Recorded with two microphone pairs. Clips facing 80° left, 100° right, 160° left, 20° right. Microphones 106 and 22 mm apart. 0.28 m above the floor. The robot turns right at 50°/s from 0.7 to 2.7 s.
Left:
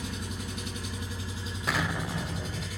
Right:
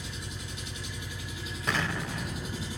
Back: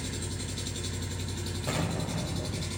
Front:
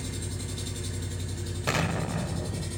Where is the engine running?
95° left, 1.9 m; by 2.8 s 165° right, 1.9 m.